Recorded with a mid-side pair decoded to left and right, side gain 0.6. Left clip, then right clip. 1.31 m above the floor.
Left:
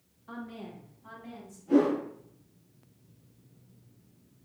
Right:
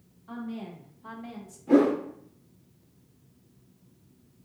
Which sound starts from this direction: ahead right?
A whoosh, at 1.7 s.